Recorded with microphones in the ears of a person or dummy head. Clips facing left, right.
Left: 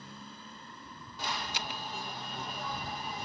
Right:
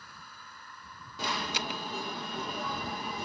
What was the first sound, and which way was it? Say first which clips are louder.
A motorcycle: left 5 dB; 30° left (ahead or behind).